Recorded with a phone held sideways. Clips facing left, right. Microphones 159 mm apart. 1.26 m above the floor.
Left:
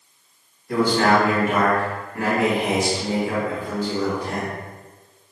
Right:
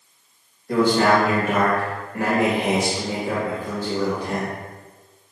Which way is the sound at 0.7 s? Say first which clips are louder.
Right 1 dB; 65° right (ahead or behind).